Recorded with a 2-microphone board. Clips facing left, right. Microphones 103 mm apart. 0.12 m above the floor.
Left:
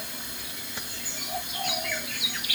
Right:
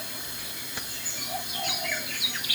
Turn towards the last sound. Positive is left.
No sound to turn to.